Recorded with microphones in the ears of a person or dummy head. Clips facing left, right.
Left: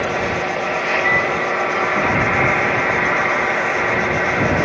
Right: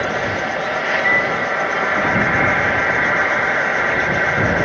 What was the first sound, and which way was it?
An insect, 5° right (ahead or behind).